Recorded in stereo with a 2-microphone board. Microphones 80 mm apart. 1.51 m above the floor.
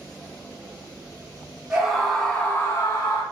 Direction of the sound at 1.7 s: 10° right (ahead or behind).